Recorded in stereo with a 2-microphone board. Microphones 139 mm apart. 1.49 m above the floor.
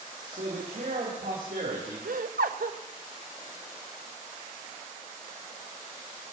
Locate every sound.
0.3 s a man speaking: 85° right, 3 m
2.0 s laughter: 75° right (ahead or behind), 0.8 m